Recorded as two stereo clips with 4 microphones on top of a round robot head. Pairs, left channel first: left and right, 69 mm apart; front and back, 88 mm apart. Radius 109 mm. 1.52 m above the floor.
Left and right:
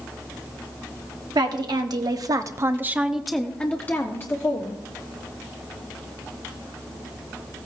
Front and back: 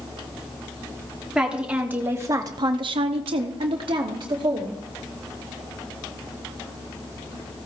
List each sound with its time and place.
1.4 s a woman speaking: 100° right, 1.2 m; by 4.8 s 135° left, 1.4 m